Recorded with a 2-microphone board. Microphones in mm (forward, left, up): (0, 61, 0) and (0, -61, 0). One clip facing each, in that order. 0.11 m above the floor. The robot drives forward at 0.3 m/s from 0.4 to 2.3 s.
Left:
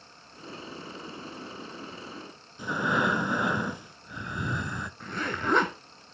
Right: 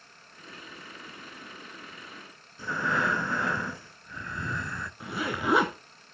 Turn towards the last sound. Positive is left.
turn(degrees=-10)  # may be behind; listen again after turning